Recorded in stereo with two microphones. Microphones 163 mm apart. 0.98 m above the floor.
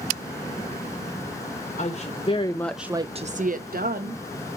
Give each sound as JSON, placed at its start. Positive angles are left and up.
{"t": 1.8, "sound": "a woman speaking", "side_deg": 45, "distance_m": 1.3}